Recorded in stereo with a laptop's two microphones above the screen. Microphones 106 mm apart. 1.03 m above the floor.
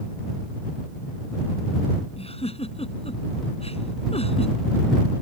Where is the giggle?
85° left.